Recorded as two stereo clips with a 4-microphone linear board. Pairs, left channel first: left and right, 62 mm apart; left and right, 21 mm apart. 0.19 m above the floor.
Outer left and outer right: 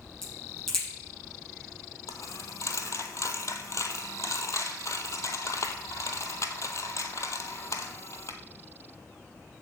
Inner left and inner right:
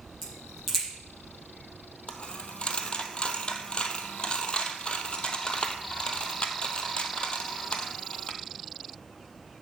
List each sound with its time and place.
0.2 s a crack: 5° left (ahead or behind), 6 m
2.1 s a dropped coin: 55° left (ahead or behind), 1.1 m